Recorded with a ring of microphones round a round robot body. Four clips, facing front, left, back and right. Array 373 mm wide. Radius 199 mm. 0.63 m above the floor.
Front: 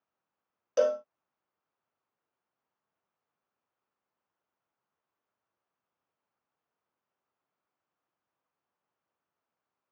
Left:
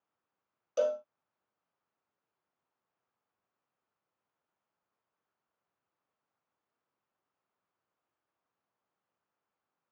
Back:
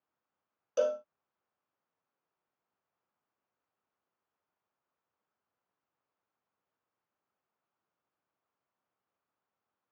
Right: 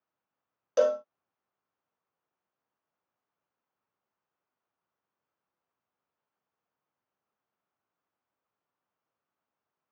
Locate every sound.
0.8 s a cowbell: 65° right